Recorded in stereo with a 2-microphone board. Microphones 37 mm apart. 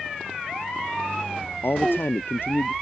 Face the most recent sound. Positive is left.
turn(degrees=75)  # may be behind; listen again after turning